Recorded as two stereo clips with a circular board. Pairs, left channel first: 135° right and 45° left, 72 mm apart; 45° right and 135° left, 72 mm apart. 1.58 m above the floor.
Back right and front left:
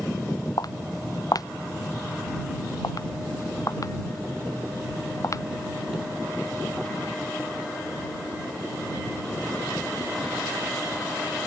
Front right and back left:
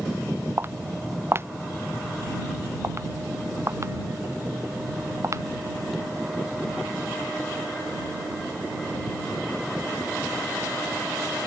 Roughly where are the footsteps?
Behind.